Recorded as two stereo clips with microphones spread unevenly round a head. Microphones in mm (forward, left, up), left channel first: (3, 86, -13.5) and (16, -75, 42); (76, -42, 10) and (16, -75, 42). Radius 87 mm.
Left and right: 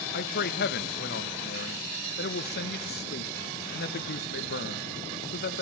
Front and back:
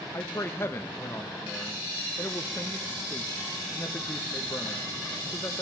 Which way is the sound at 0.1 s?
90° left.